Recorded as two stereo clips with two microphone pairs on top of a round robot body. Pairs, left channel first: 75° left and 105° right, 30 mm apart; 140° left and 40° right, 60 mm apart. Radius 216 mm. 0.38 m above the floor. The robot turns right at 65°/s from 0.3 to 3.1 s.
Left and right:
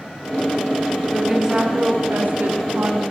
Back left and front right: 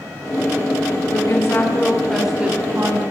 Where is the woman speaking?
165° left, 5.5 m; by 3.0 s 75° right, 5.5 m.